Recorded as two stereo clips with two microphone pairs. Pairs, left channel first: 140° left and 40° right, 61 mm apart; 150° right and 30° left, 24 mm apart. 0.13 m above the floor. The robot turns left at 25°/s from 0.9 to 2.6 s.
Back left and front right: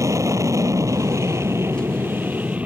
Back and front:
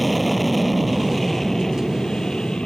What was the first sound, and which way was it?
An aircraft, 60° right.